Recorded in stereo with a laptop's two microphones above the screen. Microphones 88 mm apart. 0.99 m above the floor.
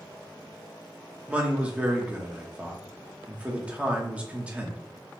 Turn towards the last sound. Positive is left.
turn(degrees=-15)  # may be behind; listen again after turning